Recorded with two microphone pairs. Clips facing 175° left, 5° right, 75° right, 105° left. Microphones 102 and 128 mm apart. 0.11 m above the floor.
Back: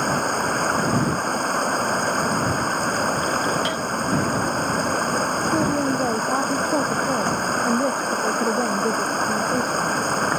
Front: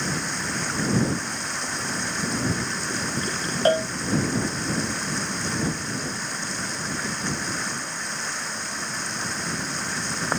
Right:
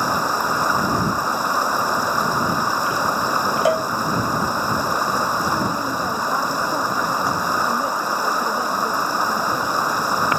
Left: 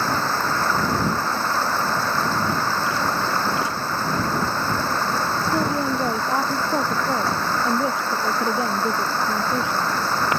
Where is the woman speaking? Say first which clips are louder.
Back 9 dB, left 1 dB; 175° left.